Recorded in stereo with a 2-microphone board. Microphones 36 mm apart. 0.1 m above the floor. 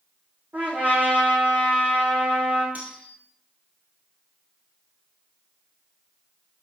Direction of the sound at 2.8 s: 40° right (ahead or behind).